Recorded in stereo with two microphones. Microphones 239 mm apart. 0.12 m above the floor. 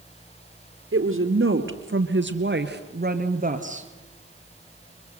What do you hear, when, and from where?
0.9 s a woman speaking: 60° right (ahead or behind), 2.5 m; by 3.9 s 30° right (ahead or behind), 2 m